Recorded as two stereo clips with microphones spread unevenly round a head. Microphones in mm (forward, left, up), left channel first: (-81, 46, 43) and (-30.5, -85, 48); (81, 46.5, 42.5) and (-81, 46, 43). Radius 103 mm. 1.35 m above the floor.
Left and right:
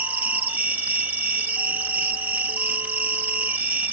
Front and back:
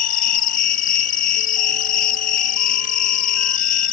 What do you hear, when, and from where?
0.0 s an insect: 10° left